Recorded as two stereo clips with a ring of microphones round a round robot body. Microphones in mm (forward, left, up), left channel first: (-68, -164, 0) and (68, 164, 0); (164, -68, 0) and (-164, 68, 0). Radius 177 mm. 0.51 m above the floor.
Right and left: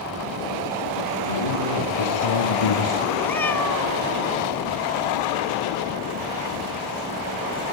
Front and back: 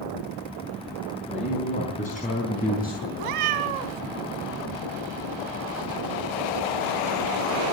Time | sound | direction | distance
1.3 | a man speaking | 95° right | 5 m
3.2 | a cat meowing | 165° left | 1.5 m